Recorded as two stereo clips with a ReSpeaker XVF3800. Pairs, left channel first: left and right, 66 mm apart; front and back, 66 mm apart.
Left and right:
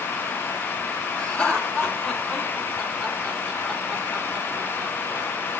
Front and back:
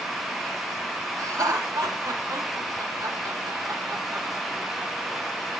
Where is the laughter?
155° left, 4 m; by 5.3 s 110° right, 2 m.